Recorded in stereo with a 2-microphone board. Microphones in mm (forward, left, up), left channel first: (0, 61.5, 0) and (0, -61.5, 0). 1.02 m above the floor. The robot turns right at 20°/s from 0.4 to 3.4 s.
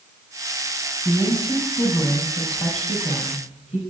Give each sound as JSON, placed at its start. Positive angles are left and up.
{"t": 1.1, "sound": "a woman speaking", "azimuth_deg": 30, "distance_m": 6.5}